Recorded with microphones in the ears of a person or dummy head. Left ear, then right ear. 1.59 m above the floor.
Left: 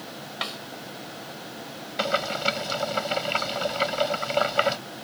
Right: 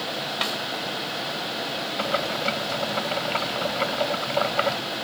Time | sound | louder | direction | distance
0.4 | a snare drum | right 3 dB | 5° right (ahead or behind) | ?
2.0 | boiling | left 2 dB | 25° left (ahead or behind) | ?